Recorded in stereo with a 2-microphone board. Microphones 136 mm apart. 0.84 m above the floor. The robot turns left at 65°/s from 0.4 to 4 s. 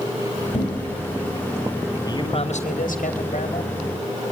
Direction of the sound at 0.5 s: 50° left (ahead or behind).